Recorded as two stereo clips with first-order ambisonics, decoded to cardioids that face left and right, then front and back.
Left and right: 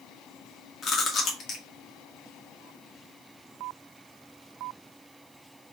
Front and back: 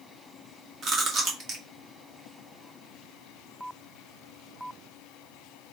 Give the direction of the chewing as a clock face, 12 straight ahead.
8 o'clock.